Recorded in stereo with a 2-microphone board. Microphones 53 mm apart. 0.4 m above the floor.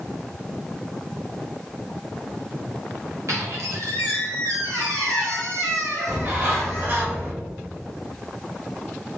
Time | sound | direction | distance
3.3 | a squeak | 70° right (ahead or behind) | 1.7 m
6.1 | a bird | 40° right (ahead or behind) | 1.9 m